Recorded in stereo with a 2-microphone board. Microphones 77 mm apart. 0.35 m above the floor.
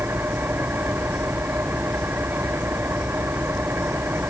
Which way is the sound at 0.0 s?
25° right (ahead or behind).